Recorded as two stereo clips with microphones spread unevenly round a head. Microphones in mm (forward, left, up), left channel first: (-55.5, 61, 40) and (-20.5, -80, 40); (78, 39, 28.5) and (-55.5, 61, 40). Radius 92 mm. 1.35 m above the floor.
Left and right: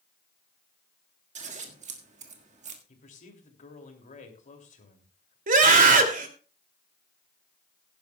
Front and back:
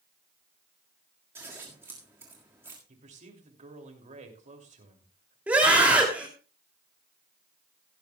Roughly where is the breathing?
No breathing in this recording.